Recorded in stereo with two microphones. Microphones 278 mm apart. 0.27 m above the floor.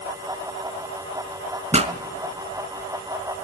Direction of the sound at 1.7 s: 25° right (ahead or behind).